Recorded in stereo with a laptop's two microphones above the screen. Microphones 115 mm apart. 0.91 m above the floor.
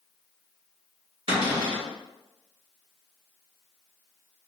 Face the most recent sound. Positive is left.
turn(degrees=-55)  # may be behind; listen again after turning